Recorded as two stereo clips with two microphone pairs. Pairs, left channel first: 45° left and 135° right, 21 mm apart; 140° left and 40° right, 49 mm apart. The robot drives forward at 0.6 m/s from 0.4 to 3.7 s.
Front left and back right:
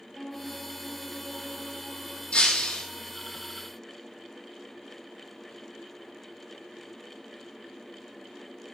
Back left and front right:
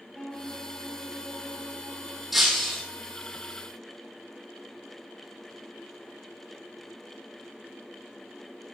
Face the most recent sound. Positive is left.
turn(degrees=85)